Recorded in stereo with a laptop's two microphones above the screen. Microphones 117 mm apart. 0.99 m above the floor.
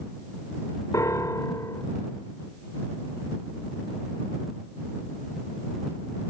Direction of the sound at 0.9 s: 30° left (ahead or behind).